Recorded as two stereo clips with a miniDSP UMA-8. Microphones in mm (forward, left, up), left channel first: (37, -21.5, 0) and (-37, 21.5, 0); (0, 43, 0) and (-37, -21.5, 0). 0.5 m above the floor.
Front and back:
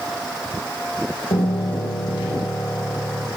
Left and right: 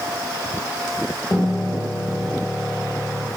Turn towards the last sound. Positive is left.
turn(degrees=-30)